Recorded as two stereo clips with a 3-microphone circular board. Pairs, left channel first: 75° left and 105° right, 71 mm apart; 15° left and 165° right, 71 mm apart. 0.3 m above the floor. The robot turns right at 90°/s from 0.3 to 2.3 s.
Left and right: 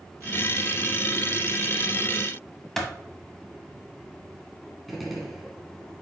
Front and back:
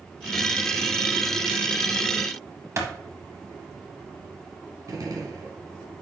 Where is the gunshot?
165° left, 1.5 m.